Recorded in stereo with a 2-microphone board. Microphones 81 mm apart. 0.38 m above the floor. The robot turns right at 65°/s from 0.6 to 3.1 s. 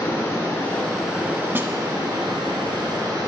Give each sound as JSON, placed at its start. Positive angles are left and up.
{"t": 0.0, "sound": "running water", "azimuth_deg": 150, "distance_m": 2.0}
{"t": 1.6, "sound": "a snare drum", "side_deg": -30, "distance_m": 0.6}